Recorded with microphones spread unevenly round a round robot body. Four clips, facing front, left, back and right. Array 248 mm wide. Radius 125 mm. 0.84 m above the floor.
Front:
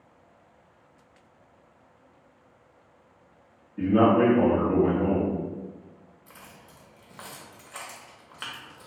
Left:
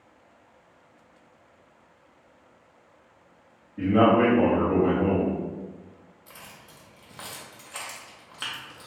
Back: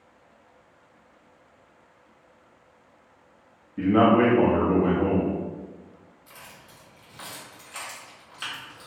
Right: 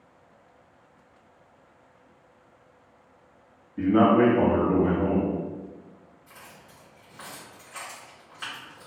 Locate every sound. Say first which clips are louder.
3.8 s a man speaking: even, back 1 dB; 145° right, 1.0 m
6.3 s keys jangling: left 1 dB, back 2 dB; 60° left, 0.8 m